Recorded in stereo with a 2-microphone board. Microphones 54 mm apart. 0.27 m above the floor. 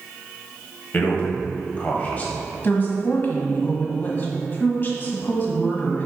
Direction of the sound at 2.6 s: 40° left (ahead or behind).